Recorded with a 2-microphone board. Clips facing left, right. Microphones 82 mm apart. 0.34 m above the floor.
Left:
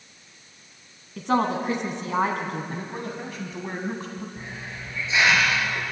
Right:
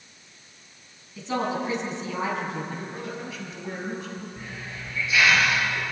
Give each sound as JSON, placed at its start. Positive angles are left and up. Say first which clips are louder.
{"t": 1.2, "sound": "a woman speaking", "louder": "left 4 dB", "side_deg": 60, "distance_m": 3.5}
{"t": 2.7, "sound": "a man speaking", "louder": "left 1 dB", "side_deg": 45, "distance_m": 2.5}
{"t": 4.4, "sound": "a hiss", "louder": "left 1 dB", "side_deg": 25, "distance_m": 5.0}